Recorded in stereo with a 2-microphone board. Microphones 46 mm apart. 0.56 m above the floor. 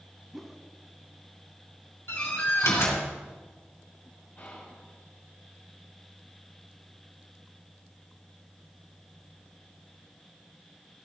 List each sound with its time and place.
0.3 s a whoosh: 5° right (ahead or behind), 0.7 m
2.1 s a door slam: 70° left (ahead or behind), 3 m
4.4 s whispering: 30° left (ahead or behind), 3.5 m